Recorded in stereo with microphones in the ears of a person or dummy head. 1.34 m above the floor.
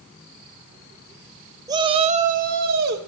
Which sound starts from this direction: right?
A shout, at 1.7 s.